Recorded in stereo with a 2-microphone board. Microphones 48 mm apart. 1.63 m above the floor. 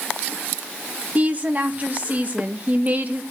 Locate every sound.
1.1 s a woman speaking: 35° right (ahead or behind), 1.7 m